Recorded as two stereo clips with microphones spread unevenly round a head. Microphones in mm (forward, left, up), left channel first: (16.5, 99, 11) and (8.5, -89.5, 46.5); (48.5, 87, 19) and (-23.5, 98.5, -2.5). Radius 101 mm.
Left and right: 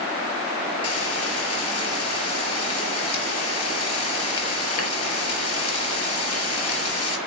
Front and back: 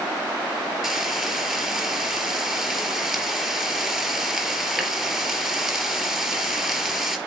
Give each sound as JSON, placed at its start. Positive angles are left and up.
{"t": 0.8, "sound": "frying", "azimuth_deg": 80, "distance_m": 3.5}